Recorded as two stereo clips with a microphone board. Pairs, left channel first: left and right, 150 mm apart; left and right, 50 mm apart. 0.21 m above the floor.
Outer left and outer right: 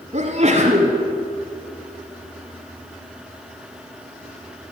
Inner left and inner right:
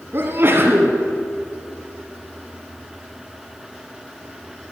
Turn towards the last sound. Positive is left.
turn(degrees=-45)  # may be behind; listen again after turning